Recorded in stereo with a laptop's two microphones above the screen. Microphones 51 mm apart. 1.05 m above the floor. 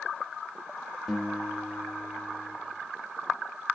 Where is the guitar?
5° left (ahead or behind), 1.0 m.